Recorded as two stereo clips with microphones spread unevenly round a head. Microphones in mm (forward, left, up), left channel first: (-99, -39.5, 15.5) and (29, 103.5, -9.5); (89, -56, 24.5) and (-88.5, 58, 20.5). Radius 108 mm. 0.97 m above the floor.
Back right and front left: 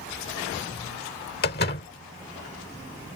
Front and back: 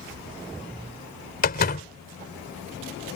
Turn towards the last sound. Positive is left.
turn(degrees=-80)